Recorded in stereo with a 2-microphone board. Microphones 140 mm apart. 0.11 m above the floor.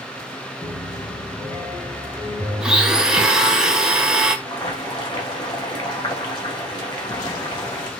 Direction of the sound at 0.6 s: 20° left (ahead or behind).